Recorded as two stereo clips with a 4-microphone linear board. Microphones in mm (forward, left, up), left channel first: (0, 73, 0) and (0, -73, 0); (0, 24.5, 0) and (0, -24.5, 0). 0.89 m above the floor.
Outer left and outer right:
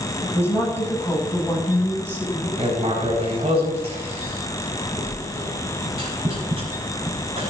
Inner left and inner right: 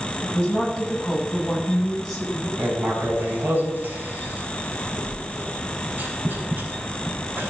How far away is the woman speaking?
About 6.5 m.